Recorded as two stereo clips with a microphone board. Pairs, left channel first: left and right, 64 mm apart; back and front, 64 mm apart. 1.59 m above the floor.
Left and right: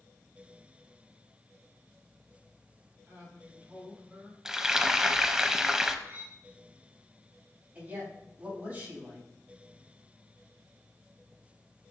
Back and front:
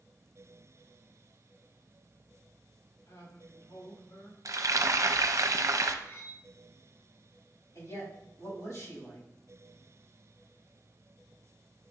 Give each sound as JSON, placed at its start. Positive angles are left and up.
{"t": 3.1, "sound": "a man speaking", "azimuth_deg": -155, "distance_m": 4.0}
{"t": 4.5, "sound": "frying", "azimuth_deg": -10, "distance_m": 0.6}
{"t": 6.0, "sound": "cutlery clinking", "azimuth_deg": -145, "distance_m": 1.4}
{"t": 7.8, "sound": "a man speaking", "azimuth_deg": -155, "distance_m": 4.0}